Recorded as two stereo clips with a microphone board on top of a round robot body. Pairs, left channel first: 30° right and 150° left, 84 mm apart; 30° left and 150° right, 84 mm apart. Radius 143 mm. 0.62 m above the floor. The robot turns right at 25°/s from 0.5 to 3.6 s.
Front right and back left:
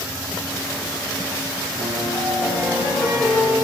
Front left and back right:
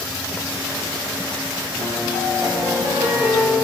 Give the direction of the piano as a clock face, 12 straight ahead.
5 o'clock.